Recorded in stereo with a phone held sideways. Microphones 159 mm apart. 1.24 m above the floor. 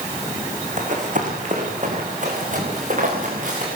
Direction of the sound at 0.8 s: 50° right (ahead or behind).